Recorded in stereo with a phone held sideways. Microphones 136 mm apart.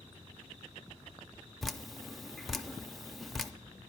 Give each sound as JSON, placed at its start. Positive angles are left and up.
{"t": 1.6, "sound": "dripping", "side_deg": 0, "distance_m": 0.5}